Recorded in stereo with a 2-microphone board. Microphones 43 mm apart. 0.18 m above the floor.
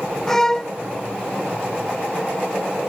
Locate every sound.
0.3 s a violin: 10° left (ahead or behind)